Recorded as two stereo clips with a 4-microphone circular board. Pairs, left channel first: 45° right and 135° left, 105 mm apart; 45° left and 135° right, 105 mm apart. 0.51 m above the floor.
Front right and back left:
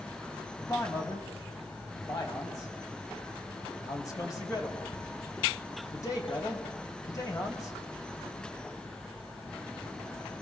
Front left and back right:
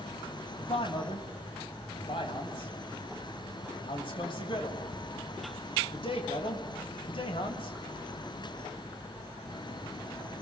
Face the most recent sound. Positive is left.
turn(degrees=10)